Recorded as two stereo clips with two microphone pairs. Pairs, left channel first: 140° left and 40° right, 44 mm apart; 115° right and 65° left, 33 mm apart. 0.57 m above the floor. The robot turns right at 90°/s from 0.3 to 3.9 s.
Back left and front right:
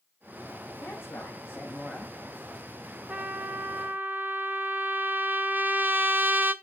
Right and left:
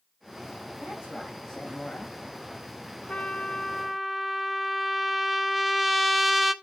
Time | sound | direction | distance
0.8 | a woman speaking | 120° left | 4 m
3.1 | a trumpet | 90° right | 1.4 m